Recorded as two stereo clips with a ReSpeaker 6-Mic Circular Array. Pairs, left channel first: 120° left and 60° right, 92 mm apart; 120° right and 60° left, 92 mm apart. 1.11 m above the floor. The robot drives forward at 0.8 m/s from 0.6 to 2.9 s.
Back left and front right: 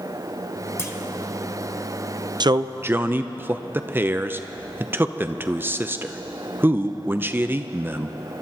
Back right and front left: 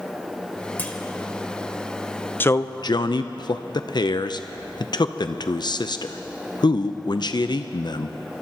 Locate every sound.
0.8 s a clunk: 170° left, 1.2 m
2.4 s a man speaking: 60° right, 0.5 m; by 8.4 s 120° right, 0.5 m